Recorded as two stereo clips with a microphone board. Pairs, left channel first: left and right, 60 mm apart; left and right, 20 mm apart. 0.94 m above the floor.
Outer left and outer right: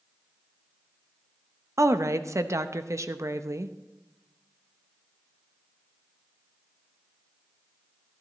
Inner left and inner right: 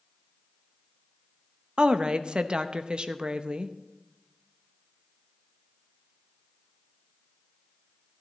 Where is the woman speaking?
55° right (ahead or behind), 0.6 m.